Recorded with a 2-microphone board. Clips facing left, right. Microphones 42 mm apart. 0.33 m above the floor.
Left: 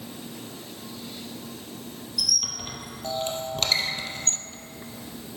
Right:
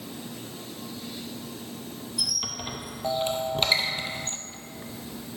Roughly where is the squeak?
Right.